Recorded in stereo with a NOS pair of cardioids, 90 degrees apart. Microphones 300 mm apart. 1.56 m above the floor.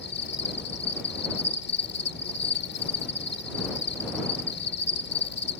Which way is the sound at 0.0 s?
40° left.